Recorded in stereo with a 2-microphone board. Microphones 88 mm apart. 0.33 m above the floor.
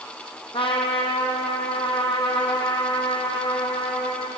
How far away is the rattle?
No rattle in this recording.